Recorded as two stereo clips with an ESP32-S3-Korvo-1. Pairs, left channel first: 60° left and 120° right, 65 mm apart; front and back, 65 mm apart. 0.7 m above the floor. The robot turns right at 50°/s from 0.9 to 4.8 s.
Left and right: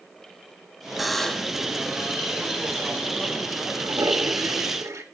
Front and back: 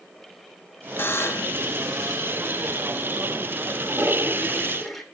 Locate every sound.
1.0 s a buzzer: 35° right, 0.6 m; by 1.6 s 5° right, 0.6 m
3.8 s a toilet flushing: 140° right, 2.5 m; by 5.0 s 85° right, 2.5 m